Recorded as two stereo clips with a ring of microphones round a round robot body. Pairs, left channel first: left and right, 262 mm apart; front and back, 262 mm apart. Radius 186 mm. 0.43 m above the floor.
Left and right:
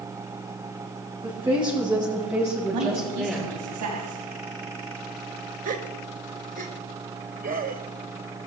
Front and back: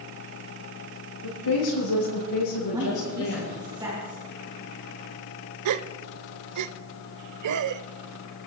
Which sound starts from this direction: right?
A woman speaking, at 2.7 s.